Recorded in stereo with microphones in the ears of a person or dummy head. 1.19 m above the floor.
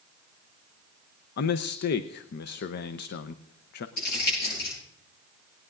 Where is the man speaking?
65° left (ahead or behind), 0.6 m.